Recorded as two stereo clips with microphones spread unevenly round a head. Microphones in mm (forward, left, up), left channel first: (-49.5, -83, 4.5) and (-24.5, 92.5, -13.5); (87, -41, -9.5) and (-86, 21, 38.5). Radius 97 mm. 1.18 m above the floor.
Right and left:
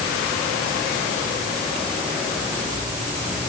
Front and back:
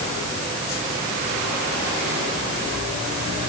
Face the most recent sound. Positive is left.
No sound to turn to.